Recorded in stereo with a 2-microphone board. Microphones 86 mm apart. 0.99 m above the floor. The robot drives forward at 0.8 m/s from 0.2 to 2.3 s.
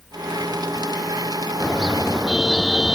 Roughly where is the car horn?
Centre.